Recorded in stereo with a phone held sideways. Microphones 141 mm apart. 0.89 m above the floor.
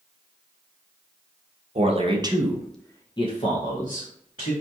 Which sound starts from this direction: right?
A man speaking, at 1.8 s.